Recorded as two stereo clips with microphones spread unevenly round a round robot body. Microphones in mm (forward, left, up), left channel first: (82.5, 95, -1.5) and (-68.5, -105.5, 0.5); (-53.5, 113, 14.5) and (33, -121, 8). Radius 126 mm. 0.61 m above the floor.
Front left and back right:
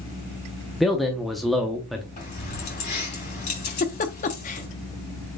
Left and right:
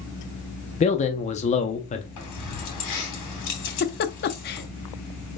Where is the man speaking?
140° left, 0.6 m.